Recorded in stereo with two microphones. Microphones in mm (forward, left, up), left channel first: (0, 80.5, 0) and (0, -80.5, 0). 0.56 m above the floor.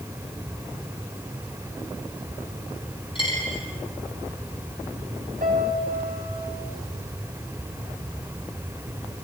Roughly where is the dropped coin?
Left.